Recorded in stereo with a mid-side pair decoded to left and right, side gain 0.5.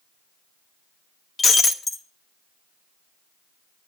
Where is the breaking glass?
35° left, 2 m.